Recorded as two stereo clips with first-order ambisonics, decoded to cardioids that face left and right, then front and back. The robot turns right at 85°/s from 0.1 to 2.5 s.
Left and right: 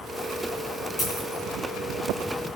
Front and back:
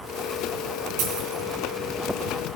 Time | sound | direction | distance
1.0 | a dropped coin | 170° left | 3.5 m